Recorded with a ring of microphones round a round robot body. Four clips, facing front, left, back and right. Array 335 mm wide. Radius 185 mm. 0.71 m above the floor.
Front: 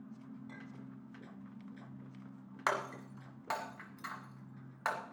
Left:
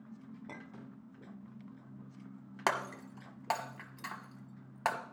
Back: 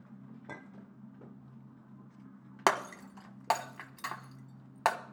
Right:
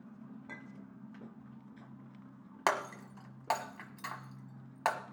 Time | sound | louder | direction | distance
0.5 | a clink | left 1 dB, back 2 dB | 165° left | 1.2 m
2.7 | breaking glass | right 1 dB, back 6 dB | straight behind | 1.4 m